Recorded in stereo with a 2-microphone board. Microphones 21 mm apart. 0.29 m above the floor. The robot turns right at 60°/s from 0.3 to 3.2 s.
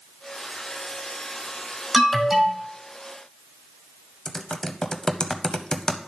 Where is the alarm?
175° left, 1.6 m; by 2.6 s 140° right, 1.6 m.